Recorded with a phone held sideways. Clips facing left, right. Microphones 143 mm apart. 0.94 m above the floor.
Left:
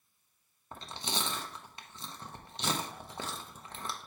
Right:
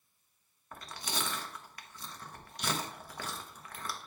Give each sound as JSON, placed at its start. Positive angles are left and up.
{"t": 0.7, "sound": "chewing", "side_deg": 25, "distance_m": 0.8}